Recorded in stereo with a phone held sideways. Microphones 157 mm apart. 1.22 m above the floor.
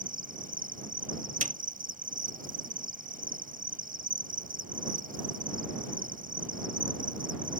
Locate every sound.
0.0 s an insect: 60° right (ahead or behind)
1.4 s a snare drum: 50° right (ahead or behind)